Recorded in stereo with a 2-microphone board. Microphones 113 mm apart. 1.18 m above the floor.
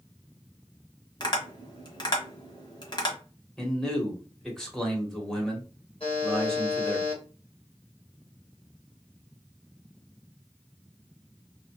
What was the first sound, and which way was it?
Tapping, 40° left (ahead or behind).